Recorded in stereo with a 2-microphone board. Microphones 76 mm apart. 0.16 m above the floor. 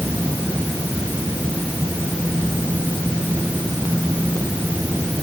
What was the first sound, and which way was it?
Only background noise.